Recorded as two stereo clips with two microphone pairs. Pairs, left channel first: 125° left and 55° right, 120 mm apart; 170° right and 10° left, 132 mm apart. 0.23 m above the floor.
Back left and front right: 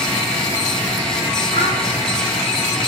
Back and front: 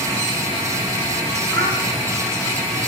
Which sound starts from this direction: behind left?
A child speaking, at 1.5 s.